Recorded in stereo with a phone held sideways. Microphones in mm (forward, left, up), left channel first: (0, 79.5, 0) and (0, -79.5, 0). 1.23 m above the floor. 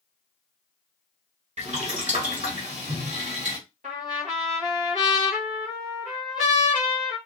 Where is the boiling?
45° right (ahead or behind), 2 m.